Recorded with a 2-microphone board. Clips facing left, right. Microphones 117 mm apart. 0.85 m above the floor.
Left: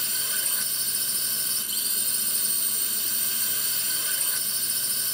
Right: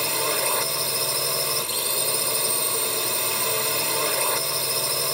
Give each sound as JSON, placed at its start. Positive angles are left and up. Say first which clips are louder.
{"t": 0.0, "sound": "a drone", "louder": "right 15 dB", "side_deg": -70}